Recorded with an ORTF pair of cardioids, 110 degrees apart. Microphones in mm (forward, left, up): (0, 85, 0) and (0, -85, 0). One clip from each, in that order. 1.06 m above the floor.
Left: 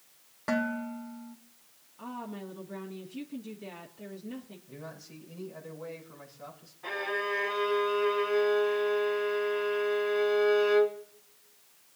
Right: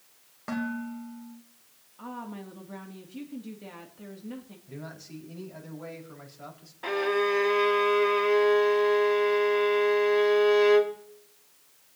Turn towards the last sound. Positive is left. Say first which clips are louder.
# right 6 dB
turn(degrees=-60)